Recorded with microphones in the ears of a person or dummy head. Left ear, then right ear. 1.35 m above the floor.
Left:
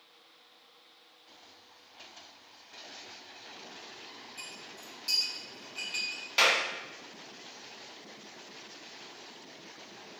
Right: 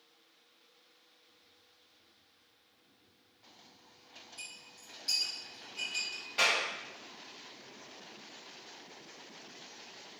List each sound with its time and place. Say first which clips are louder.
4.4 s a clink: left 2 dB; 20° left (ahead or behind), 1.1 m
6.4 s a clap: left 4 dB; 30° left (ahead or behind), 0.7 m